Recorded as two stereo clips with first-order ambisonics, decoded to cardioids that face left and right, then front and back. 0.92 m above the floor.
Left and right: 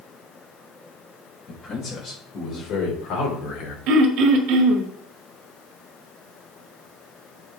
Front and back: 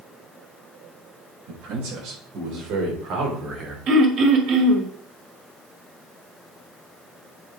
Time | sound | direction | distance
1.5 | a man speaking | 150° left | 5.5 m
3.9 | throat clearing | 125° right | 1.7 m